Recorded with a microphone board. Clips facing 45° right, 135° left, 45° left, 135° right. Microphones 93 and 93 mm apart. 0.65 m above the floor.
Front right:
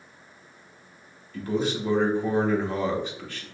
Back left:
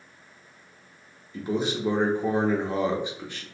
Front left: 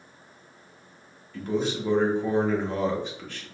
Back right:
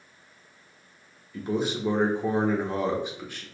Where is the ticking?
No ticking in this recording.